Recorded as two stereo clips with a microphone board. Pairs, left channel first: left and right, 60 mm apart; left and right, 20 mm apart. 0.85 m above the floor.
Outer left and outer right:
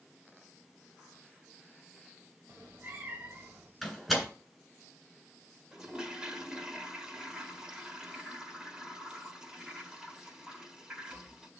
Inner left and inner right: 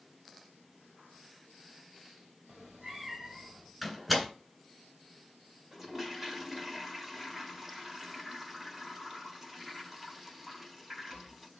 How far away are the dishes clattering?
No dishes clattering in this recording.